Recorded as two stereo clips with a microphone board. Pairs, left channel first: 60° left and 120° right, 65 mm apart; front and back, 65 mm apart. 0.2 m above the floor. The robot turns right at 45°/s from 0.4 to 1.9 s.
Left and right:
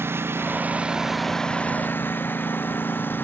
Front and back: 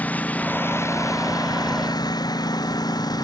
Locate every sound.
0.0 s a lawn mower: 65° right; by 3.2 s straight ahead